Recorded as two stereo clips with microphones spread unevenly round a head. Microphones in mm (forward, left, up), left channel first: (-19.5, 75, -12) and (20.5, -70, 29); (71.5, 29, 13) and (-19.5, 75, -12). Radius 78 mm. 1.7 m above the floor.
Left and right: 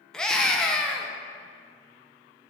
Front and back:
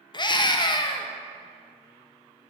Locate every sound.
0.1 s a scream: 20° left, 0.6 m